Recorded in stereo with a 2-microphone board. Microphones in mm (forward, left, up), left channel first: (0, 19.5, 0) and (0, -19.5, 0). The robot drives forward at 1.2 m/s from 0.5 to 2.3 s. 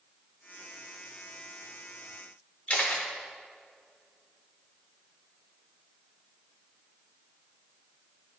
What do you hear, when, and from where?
2.7 s a camera shutter: 40° left (ahead or behind), 1.2 m